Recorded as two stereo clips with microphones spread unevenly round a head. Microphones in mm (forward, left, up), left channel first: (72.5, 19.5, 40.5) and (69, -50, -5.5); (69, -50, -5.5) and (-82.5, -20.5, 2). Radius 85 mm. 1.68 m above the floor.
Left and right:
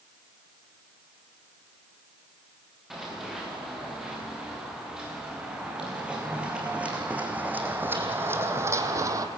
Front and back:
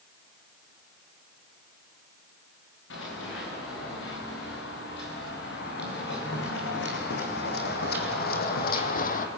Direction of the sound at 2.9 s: Straight ahead.